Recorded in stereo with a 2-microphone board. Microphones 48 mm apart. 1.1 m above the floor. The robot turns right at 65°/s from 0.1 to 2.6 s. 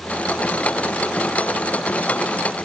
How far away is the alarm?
No alarm in this recording.